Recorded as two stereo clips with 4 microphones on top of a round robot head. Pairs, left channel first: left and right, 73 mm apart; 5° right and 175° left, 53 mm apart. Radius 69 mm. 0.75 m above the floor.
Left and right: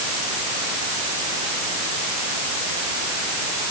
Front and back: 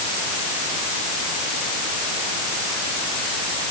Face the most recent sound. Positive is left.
No sound to turn to.